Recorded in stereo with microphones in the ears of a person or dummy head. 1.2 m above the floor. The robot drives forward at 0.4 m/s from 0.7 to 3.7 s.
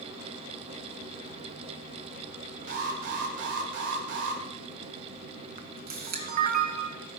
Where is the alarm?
60° right (ahead or behind), 2.5 m; by 4.4 s 65° right (ahead or behind), 2 m.